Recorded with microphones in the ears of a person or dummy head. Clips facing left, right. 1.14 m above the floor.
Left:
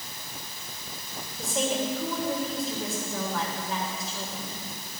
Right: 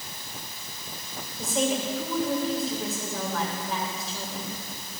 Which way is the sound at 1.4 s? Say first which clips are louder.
Right 2 dB; centre (ahead or behind).